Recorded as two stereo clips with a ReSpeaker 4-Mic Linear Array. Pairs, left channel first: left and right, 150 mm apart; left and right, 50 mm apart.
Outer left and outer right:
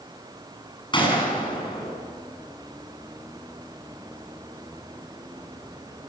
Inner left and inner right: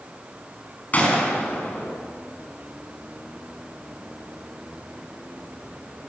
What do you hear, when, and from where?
0.9 s a gunshot: 30° left (ahead or behind), 6 m